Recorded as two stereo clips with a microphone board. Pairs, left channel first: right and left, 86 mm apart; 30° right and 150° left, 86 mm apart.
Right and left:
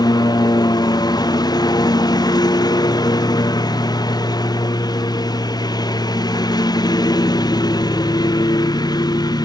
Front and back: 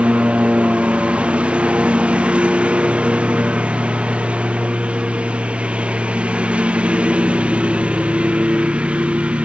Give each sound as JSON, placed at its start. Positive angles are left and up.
{"t": 0.0, "sound": "a lawn mower", "azimuth_deg": -130}